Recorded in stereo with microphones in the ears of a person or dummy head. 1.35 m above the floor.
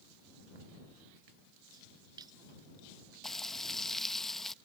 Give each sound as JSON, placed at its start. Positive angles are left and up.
{"t": 1.7, "sound": "a splash", "side_deg": -25}
{"t": 3.2, "sound": "frying", "side_deg": 0}